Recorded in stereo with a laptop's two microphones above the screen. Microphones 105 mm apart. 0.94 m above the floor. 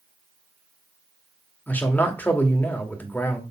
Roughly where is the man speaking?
Centre.